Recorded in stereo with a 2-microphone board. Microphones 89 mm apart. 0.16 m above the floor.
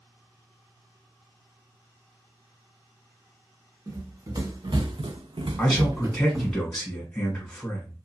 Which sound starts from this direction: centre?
A man speaking, at 5.6 s.